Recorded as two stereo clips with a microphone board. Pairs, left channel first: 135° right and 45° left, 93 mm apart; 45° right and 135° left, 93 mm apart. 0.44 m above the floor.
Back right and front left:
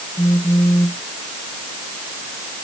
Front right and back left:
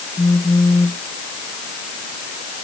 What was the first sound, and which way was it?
A phone buzzing, 85° right.